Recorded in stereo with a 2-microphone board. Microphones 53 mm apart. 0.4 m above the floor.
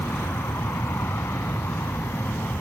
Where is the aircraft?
60° left (ahead or behind); by 2.6 s 50° left (ahead or behind).